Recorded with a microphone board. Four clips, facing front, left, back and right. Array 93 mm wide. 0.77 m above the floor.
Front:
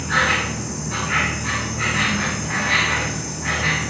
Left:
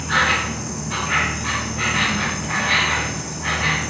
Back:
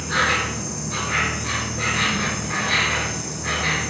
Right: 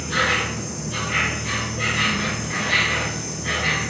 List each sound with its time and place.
0.0 s an insect: 65° left, 3.5 m